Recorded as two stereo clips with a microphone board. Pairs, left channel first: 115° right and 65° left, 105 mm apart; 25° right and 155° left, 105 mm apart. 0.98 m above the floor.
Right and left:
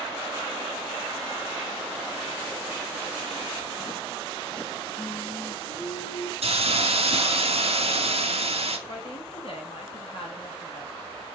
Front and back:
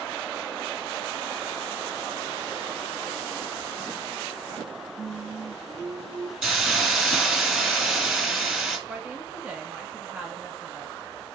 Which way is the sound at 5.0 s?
175° left.